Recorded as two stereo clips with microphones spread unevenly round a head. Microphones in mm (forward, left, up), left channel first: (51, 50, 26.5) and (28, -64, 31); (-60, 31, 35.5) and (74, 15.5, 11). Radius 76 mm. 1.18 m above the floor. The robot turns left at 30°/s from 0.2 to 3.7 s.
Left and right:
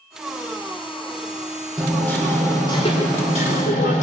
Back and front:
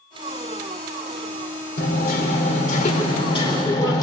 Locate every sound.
1.8 s hammering: 170° left, 4 m; by 4.0 s 110° left, 4 m